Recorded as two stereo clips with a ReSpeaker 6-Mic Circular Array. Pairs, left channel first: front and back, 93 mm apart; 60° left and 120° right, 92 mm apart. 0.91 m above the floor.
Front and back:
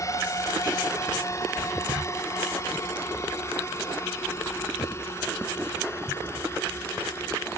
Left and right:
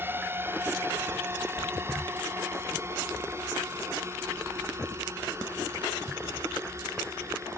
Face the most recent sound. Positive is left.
turn(degrees=-60)